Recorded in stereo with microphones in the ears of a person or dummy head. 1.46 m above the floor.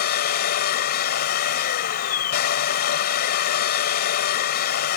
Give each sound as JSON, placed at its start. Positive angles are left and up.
{"t": 0.0, "sound": "a machine running", "side_deg": 55}